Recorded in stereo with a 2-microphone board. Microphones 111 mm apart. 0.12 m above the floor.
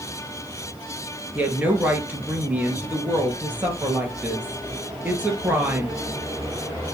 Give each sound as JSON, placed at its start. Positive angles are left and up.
{"t": 1.4, "sound": "a woman speaking", "side_deg": -15, "distance_m": 3.0}